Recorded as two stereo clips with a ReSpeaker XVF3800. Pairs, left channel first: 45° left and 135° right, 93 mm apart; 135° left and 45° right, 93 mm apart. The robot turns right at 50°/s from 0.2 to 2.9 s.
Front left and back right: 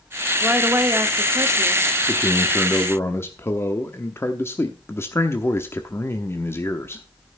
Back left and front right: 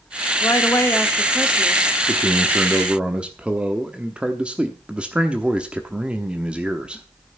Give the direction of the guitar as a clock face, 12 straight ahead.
I don't hear a guitar.